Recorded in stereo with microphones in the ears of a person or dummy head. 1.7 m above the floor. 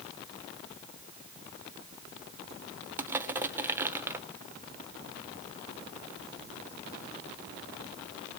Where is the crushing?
10° right (ahead or behind), 0.6 m.